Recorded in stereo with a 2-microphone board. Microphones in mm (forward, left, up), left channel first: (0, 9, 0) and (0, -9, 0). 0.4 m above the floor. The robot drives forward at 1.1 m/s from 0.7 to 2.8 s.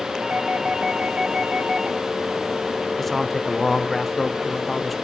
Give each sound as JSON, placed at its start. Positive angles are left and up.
{"t": 0.2, "sound": "a doorbell", "side_deg": -60, "distance_m": 3.5}
{"t": 3.0, "sound": "a man speaking", "side_deg": 15, "distance_m": 0.8}